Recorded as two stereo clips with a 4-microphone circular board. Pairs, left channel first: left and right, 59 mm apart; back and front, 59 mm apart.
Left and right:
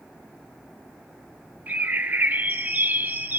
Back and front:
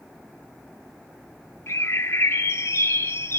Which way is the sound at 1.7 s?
145° right.